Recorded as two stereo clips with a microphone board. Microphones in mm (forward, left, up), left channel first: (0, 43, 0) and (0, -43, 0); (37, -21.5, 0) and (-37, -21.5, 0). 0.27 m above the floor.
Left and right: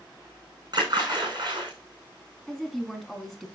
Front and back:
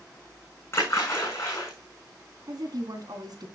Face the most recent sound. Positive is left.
turn(degrees=175)